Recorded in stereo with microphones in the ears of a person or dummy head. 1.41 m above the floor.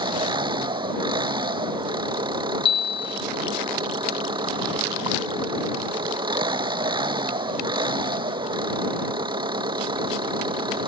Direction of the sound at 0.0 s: 20° right (ahead or behind).